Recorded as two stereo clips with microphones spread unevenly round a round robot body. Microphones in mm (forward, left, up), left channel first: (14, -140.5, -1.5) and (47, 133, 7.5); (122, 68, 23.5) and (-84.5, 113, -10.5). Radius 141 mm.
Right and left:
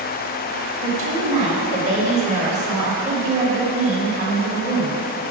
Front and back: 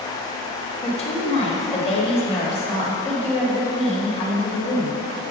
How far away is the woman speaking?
About 1.2 m.